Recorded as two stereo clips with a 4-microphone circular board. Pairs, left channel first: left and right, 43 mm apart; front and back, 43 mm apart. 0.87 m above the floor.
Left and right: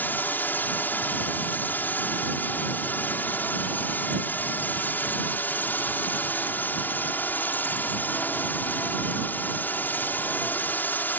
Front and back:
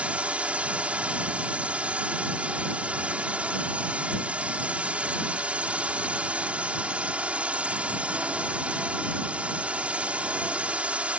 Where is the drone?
125° left.